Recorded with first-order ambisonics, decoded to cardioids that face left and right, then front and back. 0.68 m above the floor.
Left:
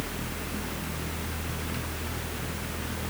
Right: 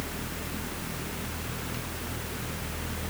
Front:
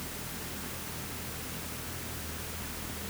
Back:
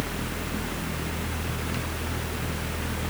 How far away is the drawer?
I don't hear a drawer.